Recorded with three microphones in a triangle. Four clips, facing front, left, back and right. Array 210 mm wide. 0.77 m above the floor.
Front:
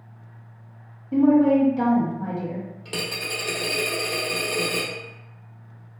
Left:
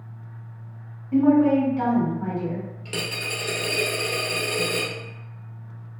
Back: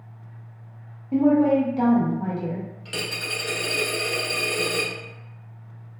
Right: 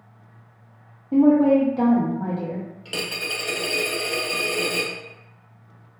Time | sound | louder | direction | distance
1.1 | a woman speaking | right 2 dB, front 1 dB | 105° right | 0.9 m
2.9 | a dropped coin | even, front 2 dB | 15° right | 0.8 m